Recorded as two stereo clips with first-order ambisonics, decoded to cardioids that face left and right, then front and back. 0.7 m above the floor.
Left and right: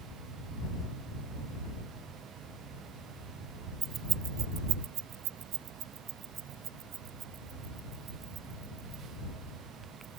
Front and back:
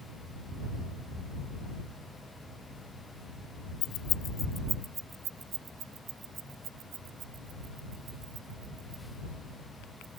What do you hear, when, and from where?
3.8 s keys jangling: 25° right; by 10.2 s 145° right